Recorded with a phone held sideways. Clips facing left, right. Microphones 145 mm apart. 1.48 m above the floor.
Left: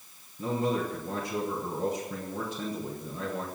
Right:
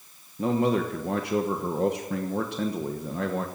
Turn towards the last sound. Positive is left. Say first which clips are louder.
# right 5 dB
turn(degrees=-70)  # may be behind; listen again after turning